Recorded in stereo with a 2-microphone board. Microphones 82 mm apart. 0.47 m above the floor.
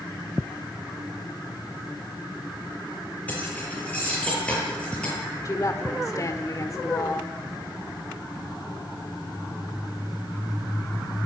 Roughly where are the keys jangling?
Centre.